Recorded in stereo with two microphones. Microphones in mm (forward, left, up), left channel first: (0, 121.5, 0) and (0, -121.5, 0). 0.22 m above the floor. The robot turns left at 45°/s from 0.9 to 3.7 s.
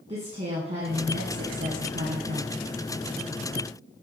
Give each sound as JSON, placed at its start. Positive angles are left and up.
{"t": 0.1, "sound": "a woman speaking", "azimuth_deg": -30, "distance_m": 1.7}